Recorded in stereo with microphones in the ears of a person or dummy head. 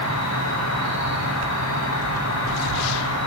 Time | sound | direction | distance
0.0 | an insect | 80° left | 7.5 m